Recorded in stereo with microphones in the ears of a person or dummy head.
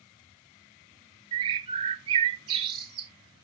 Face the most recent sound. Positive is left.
turn(degrees=-25)  # may be behind; listen again after turning